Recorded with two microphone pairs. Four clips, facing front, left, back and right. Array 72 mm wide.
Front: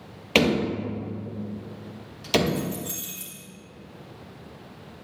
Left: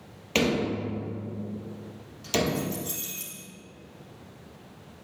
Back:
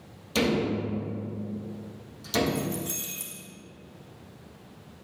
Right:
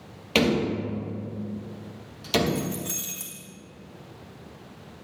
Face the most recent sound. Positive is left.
turn(degrees=-80)